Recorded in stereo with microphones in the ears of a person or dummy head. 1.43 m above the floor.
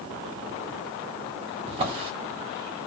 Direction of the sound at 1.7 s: 30° right (ahead or behind).